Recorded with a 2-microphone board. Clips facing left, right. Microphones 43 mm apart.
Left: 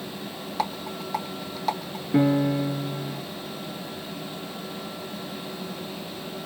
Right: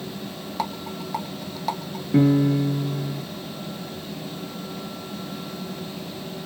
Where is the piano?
5° left (ahead or behind), 2 m.